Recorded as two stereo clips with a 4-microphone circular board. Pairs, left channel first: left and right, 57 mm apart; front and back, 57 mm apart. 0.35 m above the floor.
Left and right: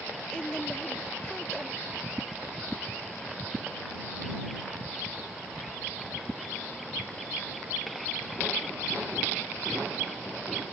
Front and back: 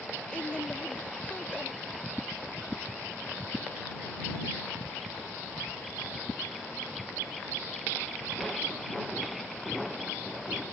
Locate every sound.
0.3 s a woman speaking: 35° left